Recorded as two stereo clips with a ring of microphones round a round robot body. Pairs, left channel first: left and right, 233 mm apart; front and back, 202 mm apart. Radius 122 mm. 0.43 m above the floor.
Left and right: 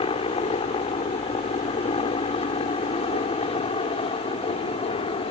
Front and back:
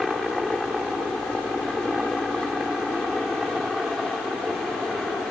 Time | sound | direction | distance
0.0 | a helicopter | 90° left | ?